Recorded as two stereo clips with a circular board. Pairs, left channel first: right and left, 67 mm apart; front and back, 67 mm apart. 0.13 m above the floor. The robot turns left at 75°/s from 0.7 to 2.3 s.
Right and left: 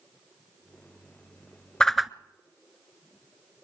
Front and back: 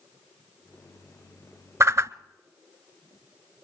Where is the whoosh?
165° right, 0.5 m; by 2.1 s 170° left, 0.5 m.